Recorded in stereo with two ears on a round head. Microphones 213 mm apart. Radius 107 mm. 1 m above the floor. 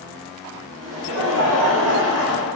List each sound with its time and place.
0.8 s laughter: 65° right (ahead or behind), 1.8 m